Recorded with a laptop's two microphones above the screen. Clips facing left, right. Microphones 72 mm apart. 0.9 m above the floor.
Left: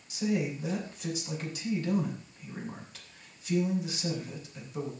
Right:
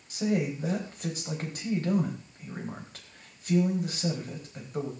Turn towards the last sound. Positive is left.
turn(degrees=-45)  # may be behind; listen again after turning